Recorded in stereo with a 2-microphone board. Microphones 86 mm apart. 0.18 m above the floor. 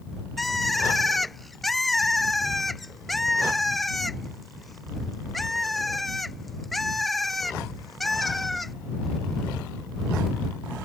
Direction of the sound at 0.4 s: Centre (ahead or behind).